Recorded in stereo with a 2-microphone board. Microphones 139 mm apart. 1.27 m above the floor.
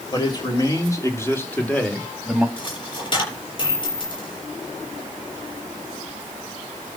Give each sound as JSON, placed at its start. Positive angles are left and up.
{"t": 0.1, "sound": "a man speaking", "side_deg": 30, "distance_m": 4.5}
{"t": 2.6, "sound": "a dropped coin", "side_deg": 35, "distance_m": 7.0}